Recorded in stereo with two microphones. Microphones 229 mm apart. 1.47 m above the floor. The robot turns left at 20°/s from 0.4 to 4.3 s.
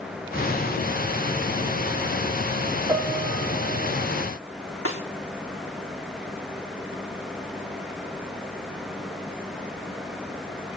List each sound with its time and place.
2.9 s a piano: 5° right (ahead or behind), 3.5 m; by 3.9 s 25° right (ahead or behind), 3.5 m
4.8 s a snare drum: 85° left, 3 m